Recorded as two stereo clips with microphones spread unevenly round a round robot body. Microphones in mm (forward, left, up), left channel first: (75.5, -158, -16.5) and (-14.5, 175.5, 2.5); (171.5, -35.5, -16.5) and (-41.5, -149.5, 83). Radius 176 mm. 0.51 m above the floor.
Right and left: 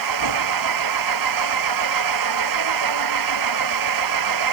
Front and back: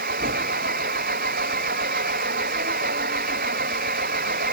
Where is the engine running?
145° left.